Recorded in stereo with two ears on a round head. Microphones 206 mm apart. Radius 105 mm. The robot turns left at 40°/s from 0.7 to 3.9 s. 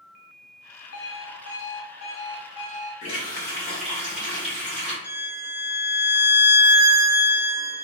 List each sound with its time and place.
0.9 s an alarm clock: 95° left, 1.9 m; by 2.9 s 15° left, 1.9 m
3.0 s a running tap: 30° left, 1.4 m; by 4.9 s 5° right, 1.4 m
5.0 s a violin: 55° left (ahead or behind), 1.3 m